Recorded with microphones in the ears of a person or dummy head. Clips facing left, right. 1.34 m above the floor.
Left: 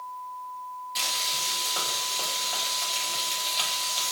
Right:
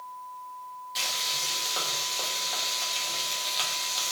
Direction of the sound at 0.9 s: Centre (ahead or behind).